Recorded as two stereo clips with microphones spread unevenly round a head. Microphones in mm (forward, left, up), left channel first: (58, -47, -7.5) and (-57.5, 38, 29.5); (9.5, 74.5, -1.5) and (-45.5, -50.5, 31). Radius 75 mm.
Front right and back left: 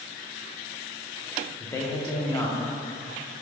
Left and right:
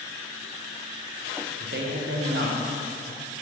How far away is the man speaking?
About 0.7 m.